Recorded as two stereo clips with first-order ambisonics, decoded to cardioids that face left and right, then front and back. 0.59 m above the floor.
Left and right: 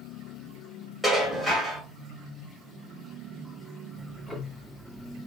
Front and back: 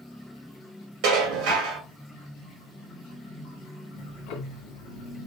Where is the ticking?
10° left, 0.7 m.